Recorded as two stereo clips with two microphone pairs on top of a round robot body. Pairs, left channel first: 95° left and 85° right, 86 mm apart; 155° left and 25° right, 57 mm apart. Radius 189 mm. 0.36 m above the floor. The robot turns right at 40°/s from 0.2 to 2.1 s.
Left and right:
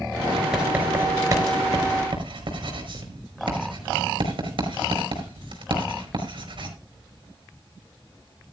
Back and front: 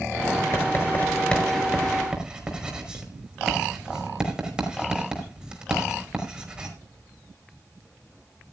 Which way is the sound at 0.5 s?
165° right.